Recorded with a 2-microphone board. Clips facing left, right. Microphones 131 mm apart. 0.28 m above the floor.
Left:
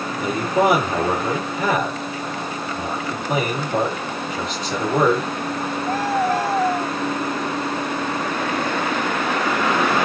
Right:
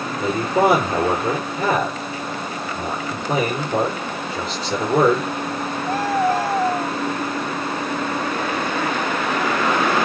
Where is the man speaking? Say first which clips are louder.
Right 1 dB; 35° right (ahead or behind), 6.5 m.